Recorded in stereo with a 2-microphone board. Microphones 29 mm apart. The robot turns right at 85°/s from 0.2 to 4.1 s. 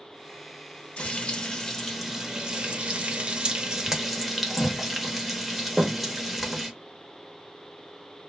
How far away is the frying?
About 0.6 m.